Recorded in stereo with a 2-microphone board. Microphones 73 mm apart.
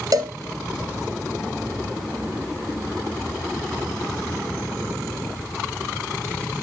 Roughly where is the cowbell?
Right.